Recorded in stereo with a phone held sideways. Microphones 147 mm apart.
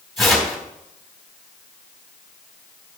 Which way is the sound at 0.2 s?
Centre (ahead or behind).